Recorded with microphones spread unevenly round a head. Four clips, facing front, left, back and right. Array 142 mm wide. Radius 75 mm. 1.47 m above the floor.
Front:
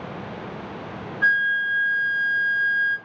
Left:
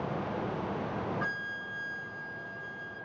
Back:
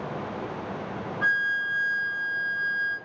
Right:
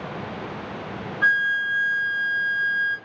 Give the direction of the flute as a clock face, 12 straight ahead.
7 o'clock.